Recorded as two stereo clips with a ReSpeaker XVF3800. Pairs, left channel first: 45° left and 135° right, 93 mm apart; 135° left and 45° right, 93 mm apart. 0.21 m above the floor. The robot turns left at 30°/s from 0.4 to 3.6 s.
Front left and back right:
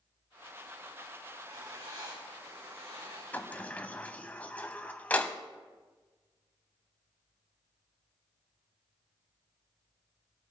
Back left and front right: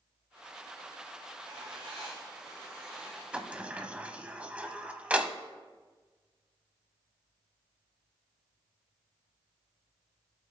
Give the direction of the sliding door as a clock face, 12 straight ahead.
12 o'clock.